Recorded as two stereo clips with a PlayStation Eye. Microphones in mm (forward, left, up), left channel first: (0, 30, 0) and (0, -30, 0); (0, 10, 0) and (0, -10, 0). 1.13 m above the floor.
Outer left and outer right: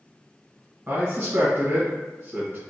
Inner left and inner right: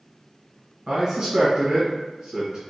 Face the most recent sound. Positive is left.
turn(degrees=-25)  # may be behind; listen again after turning